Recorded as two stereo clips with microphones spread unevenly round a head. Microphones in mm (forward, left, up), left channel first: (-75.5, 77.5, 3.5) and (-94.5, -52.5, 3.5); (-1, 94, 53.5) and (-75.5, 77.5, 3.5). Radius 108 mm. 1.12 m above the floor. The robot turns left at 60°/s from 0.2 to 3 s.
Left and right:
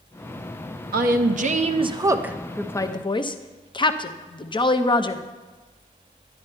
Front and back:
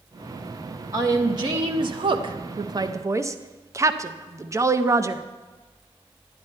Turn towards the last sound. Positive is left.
turn(degrees=140)